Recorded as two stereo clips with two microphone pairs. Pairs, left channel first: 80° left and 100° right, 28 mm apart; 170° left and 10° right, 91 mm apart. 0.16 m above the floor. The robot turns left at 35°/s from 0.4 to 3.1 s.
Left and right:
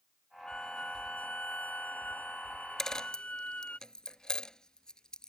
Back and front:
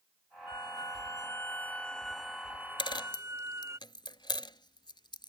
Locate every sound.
0.5 s a violin: 135° left; by 3.8 s 45° left
2.8 s a dropped coin: 150° left; by 5.3 s 140° left